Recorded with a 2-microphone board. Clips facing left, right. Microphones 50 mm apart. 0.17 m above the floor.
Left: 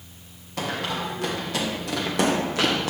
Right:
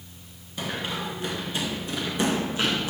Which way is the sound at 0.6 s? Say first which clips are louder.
Left 3 dB; 70° left (ahead or behind).